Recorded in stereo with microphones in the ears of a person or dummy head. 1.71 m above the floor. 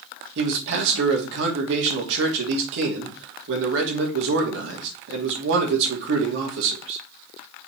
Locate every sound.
0.3 s a man speaking: 70° right (ahead or behind), 3 m